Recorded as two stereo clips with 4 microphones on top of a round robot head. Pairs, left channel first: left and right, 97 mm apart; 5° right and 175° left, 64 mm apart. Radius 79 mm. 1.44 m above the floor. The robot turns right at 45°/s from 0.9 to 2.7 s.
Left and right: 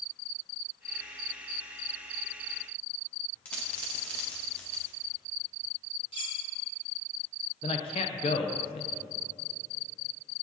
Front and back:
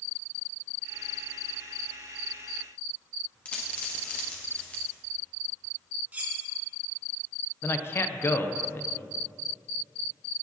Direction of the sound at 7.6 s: 50° left.